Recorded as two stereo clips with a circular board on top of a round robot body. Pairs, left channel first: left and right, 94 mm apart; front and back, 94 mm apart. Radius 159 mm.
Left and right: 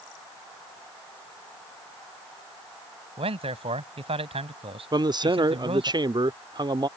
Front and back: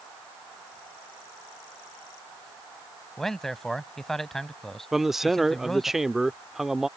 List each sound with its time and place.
3.2 s a man speaking: 85° right
4.9 s a man speaking: 95° right